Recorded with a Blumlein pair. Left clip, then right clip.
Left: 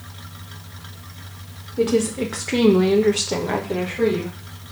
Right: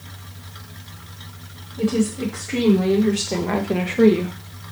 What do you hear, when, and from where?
1.8 s a woman speaking: 60° left, 1.1 m; by 4.3 s 35° right, 0.9 m